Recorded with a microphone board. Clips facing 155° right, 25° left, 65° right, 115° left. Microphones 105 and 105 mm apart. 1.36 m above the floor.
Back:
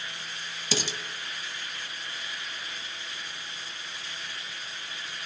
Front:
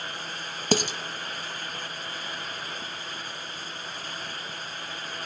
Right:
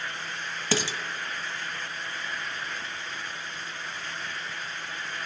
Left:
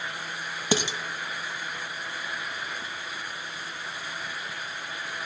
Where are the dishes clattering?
45° left, 0.8 m.